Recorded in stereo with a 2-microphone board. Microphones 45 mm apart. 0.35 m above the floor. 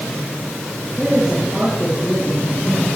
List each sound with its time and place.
1.0 s a man speaking: 5° left (ahead or behind), 5 m